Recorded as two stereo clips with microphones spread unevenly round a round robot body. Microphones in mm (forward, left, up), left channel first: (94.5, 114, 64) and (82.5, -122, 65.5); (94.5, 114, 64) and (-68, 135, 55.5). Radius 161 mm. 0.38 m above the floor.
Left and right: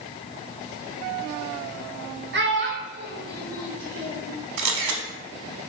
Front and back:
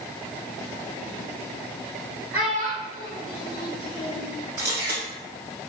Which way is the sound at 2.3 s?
115° right.